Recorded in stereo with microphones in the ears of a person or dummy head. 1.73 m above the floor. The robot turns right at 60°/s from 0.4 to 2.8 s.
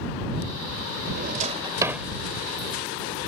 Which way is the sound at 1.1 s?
60° right (ahead or behind).